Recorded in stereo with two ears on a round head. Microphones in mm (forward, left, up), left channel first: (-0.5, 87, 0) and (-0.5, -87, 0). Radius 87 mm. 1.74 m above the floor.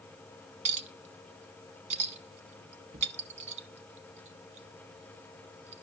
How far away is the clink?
About 0.9 m.